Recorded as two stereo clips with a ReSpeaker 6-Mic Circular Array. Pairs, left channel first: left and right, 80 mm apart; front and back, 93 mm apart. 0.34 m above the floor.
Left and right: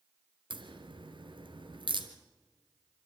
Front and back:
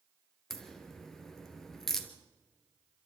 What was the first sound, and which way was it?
A crack, 85° right.